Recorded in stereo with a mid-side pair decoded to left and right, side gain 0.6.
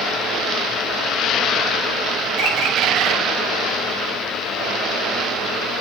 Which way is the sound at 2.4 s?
60° right.